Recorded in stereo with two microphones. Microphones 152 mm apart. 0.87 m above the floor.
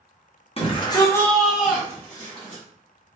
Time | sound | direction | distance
0.6 | a shout | 40° left (ahead or behind) | 1.1 m